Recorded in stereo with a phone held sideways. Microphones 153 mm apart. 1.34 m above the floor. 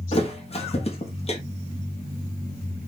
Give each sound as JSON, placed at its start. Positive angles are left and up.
{"t": 0.1, "sound": "a thud", "side_deg": 40, "distance_m": 0.8}